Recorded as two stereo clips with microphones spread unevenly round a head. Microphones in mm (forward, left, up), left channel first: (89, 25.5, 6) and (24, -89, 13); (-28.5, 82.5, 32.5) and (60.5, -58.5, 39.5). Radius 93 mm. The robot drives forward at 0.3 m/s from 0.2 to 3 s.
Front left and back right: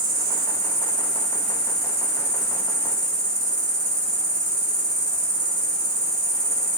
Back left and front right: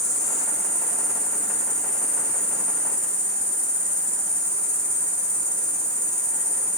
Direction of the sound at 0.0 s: 125° right.